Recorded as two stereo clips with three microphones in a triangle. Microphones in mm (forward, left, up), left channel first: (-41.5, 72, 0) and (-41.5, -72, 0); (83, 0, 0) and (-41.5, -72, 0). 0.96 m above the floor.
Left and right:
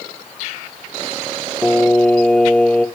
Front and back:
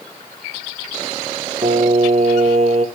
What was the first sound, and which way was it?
Singing, 170° left.